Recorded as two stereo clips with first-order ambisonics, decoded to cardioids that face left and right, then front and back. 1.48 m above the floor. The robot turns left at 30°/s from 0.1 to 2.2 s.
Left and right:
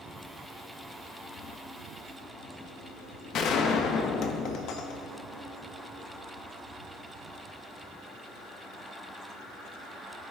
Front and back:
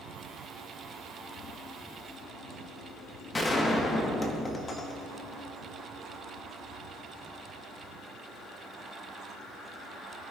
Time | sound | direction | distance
3.3 | a gunshot | 70° left | 1.0 m